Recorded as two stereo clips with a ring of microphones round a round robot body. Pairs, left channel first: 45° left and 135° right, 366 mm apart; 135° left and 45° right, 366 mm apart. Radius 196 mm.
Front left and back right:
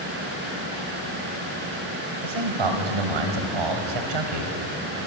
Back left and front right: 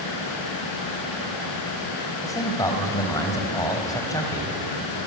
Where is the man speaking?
145° right, 3.5 m.